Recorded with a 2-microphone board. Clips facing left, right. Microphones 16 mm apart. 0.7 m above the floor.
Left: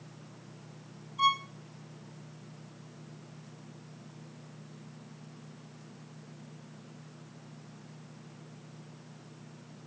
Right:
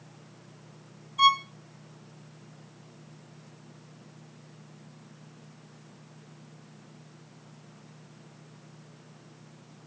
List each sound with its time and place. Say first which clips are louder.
1.2 s a violin: right 6 dB; 45° right (ahead or behind), 2.0 m